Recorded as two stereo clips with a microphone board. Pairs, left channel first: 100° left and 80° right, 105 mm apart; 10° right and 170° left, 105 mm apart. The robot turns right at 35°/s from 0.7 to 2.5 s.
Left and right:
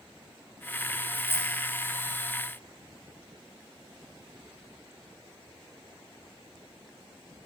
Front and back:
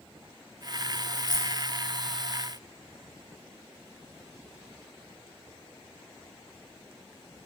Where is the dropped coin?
30° left, 3 m; by 1.6 s 45° left, 3 m.